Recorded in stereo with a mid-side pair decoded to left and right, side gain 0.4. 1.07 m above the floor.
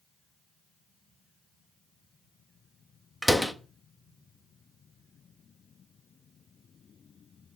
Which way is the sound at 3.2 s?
Straight ahead.